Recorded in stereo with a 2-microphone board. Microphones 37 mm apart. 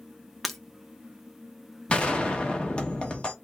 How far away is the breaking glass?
About 0.6 m.